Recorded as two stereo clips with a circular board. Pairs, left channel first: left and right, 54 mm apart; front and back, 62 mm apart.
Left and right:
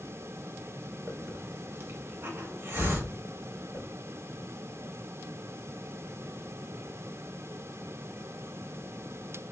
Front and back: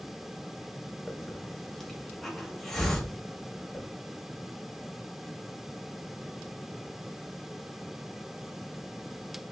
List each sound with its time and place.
1.1 s a hiss: 85° right, 0.5 m